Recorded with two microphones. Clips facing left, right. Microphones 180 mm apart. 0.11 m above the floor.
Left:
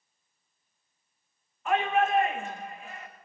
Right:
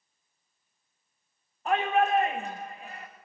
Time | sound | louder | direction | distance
1.6 | a shout | right 1 dB | 35° right (ahead or behind) | 7 m